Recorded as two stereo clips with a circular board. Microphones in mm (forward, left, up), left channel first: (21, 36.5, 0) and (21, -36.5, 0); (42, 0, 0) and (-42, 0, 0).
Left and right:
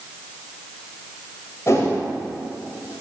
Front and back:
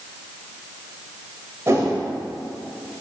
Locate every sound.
1.7 s a whoosh: 130° left, 1.6 m